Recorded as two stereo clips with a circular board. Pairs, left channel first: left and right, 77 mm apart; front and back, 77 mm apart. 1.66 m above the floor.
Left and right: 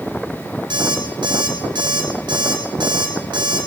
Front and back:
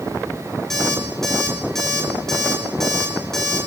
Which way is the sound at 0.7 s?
85° right.